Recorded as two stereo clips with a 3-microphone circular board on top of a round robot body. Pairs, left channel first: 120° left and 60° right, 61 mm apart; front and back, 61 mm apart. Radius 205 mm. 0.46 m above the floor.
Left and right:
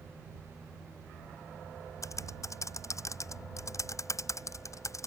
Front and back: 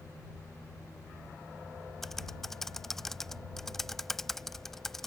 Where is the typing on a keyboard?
85° left.